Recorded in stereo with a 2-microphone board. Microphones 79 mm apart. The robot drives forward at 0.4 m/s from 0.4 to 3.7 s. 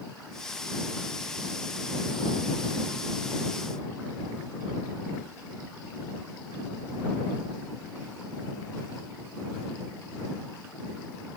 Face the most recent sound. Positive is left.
No sound to turn to.